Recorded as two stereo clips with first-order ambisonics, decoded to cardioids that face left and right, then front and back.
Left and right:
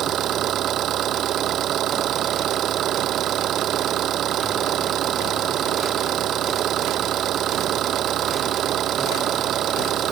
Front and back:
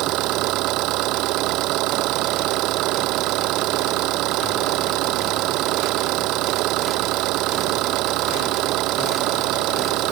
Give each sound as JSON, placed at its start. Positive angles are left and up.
{"t": 0.0, "sound": "an engine running", "azimuth_deg": -145}